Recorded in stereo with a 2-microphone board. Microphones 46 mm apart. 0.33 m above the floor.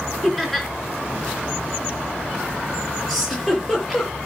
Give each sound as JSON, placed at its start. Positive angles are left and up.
{"t": 0.2, "sound": "laughter", "side_deg": 5, "distance_m": 4.0}
{"t": 3.1, "sound": "a giggle", "side_deg": 10, "distance_m": 6.5}